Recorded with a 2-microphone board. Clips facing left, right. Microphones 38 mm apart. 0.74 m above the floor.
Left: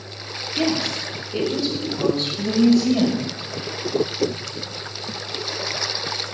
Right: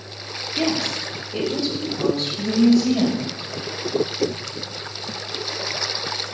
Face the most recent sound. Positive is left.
turn(degrees=55)  # may be behind; listen again after turning